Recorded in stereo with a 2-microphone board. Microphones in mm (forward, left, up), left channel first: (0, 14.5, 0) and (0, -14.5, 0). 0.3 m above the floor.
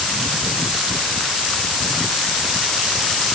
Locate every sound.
Only background noise.